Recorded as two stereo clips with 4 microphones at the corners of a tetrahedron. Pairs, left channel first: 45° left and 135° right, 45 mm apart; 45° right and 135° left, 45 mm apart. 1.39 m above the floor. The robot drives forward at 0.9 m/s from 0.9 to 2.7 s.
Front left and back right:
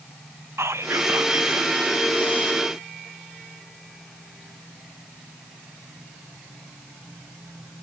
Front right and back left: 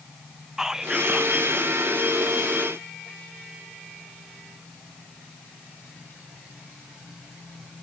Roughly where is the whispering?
Behind right.